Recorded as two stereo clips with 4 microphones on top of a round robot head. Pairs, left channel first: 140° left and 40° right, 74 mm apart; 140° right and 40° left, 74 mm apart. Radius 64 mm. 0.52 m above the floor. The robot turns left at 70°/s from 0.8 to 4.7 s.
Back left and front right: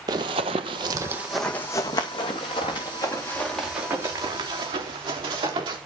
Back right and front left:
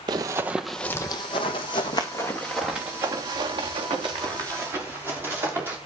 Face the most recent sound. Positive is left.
turn(degrees=-25)